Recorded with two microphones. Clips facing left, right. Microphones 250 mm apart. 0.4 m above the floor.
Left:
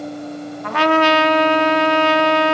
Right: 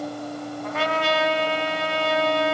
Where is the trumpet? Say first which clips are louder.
Left 10 dB; 75° left (ahead or behind), 1.0 m.